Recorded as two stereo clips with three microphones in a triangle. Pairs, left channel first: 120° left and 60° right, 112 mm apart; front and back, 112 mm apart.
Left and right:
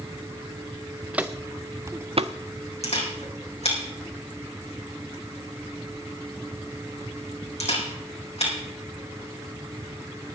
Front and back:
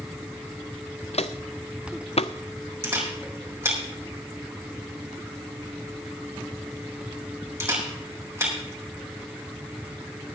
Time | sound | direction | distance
1.1 | footsteps | 20° left | 0.8 m
2.8 | a camera shutter | 115° left | 4.5 m